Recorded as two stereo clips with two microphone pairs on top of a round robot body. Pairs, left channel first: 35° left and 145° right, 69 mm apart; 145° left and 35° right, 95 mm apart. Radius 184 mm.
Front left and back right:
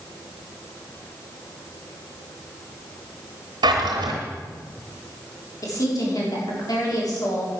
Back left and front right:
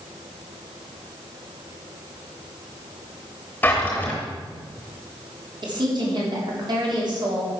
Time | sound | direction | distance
3.6 | a drawer | 140° right | 0.7 m
5.6 | a woman speaking | 5° left | 3.5 m